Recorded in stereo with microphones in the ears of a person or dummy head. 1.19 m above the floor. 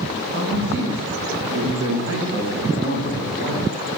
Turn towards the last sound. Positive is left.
turn(degrees=-30)  # may be behind; listen again after turning